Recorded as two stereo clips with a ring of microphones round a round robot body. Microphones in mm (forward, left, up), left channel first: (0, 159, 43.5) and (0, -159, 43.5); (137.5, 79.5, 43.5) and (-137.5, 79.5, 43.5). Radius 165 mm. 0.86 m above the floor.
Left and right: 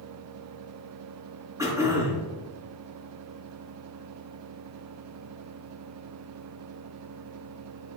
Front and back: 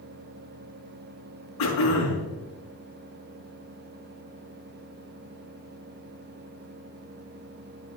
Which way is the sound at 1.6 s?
10° right.